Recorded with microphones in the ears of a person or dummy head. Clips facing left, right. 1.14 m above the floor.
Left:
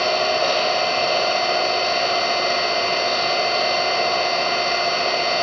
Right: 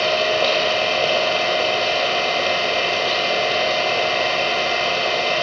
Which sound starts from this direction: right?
An engine running, at 0.0 s.